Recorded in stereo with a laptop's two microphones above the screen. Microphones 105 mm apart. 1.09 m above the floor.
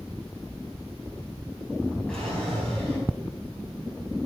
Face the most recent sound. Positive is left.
turn(degrees=5)  # may be behind; listen again after turning